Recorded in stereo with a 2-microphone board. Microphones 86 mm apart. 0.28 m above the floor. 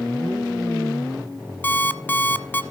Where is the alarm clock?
20° left (ahead or behind), 0.9 m.